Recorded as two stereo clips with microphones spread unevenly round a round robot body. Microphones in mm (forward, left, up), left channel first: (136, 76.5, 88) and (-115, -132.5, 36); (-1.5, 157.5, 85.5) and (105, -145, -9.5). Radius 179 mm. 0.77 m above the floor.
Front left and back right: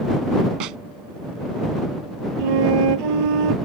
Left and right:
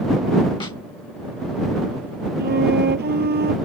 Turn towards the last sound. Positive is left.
turn(degrees=-135)